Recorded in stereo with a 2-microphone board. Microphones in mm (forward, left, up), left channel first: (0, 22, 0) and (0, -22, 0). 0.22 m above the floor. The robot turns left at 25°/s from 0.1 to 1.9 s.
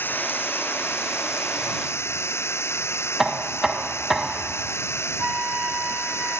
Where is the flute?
25° right (ahead or behind).